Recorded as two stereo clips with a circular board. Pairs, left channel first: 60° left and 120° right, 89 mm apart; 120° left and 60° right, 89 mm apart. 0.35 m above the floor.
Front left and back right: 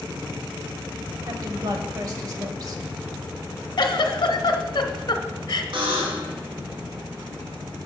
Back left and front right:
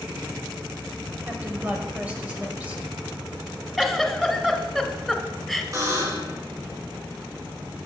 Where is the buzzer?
110° right, 2.5 m.